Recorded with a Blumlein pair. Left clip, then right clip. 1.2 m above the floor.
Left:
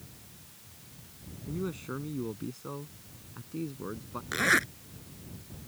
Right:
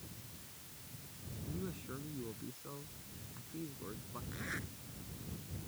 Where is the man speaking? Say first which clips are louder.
Left 10 dB; 65° left.